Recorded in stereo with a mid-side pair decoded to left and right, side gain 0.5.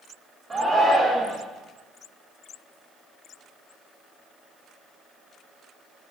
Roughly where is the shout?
Ahead right.